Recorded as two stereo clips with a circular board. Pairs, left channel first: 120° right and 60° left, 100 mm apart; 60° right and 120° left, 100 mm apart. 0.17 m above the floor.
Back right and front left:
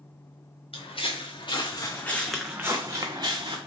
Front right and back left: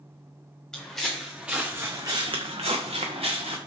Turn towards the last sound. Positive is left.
turn(degrees=100)